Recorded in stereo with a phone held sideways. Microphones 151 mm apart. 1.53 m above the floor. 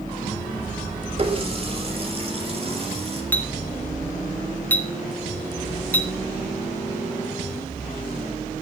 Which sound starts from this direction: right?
A running tap, at 1.2 s.